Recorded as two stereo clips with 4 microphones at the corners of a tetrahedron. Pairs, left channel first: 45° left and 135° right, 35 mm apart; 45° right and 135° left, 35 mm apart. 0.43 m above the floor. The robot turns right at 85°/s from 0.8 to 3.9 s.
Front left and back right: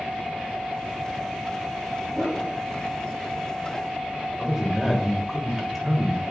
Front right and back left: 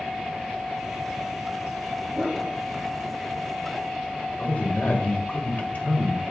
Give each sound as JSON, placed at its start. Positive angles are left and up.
{"t": 2.1, "sound": "a whoosh", "azimuth_deg": 130, "distance_m": 3.5}
{"t": 4.4, "sound": "a man speaking", "azimuth_deg": -60, "distance_m": 1.4}